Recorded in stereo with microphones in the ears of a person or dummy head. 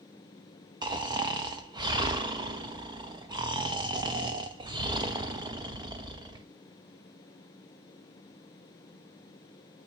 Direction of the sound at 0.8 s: 25° right (ahead or behind).